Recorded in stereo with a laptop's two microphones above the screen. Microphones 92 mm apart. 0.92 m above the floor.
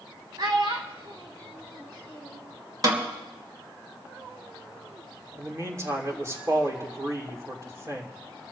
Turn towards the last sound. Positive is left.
turn(degrees=-30)  # may be behind; listen again after turning